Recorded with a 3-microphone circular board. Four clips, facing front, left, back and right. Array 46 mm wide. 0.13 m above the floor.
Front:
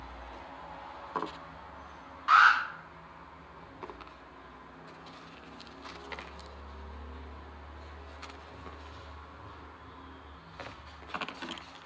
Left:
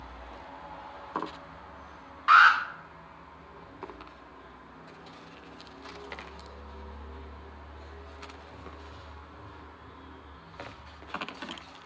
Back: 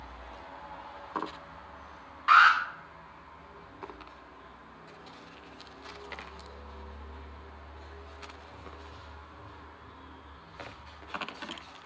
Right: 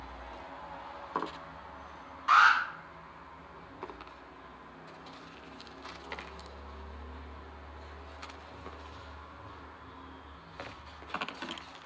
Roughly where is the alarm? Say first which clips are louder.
Left 4 dB, back 2 dB; behind left.